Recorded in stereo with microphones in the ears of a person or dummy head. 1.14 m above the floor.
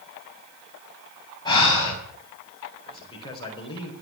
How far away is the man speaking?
About 4.5 m.